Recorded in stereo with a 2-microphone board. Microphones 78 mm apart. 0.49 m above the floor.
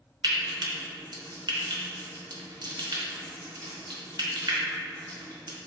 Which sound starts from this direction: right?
Frying, at 0.2 s.